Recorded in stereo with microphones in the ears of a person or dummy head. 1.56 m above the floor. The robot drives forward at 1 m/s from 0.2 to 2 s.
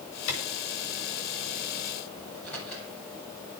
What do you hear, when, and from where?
0.3 s a clap: 70° left (ahead or behind), 8 m
2.3 s a microwave: 5° left (ahead or behind), 8 m